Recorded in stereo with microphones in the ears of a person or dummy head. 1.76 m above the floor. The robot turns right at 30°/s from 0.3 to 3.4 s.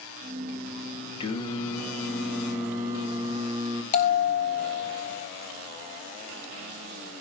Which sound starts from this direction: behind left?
Singing, at 1.2 s.